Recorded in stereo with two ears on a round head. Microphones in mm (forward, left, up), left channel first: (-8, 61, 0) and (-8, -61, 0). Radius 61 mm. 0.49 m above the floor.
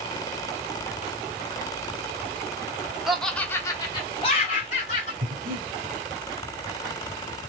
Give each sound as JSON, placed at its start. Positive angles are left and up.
{"t": 3.1, "sound": "laughter", "side_deg": -5, "distance_m": 1.0}
{"t": 5.2, "sound": "breathing", "side_deg": -70, "distance_m": 0.8}